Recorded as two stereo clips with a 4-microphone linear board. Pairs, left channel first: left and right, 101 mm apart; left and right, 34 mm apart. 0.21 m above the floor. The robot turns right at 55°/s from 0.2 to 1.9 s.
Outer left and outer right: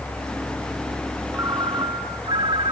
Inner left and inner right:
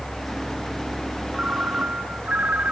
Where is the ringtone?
160° right, 1.2 m; by 2.7 s 125° right, 1.2 m.